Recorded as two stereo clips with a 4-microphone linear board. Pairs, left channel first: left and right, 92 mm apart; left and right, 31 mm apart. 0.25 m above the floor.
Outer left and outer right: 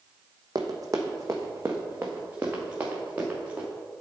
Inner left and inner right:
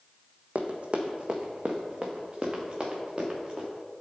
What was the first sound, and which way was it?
Running footsteps, 50° right (ahead or behind).